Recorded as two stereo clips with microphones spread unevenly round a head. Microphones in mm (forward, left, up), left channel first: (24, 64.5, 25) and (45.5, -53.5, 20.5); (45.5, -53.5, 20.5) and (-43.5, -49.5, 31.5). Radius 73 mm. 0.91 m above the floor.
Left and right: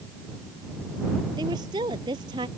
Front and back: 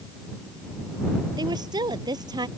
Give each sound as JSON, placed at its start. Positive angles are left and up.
{"t": 1.4, "sound": "a woman speaking", "azimuth_deg": -145}